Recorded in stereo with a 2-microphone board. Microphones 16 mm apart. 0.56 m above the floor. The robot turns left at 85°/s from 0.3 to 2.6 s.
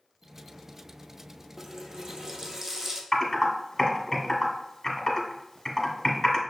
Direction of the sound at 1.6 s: 45° right.